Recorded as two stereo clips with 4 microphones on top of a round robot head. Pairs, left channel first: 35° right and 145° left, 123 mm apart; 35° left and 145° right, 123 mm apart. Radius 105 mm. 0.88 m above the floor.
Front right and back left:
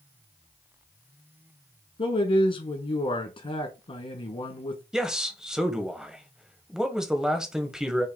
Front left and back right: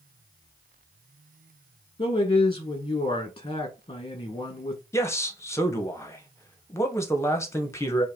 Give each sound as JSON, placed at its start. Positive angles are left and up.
{"t": 2.0, "sound": "a man speaking", "azimuth_deg": -10, "distance_m": 1.3}
{"t": 4.9, "sound": "a man speaking", "azimuth_deg": 65, "distance_m": 1.0}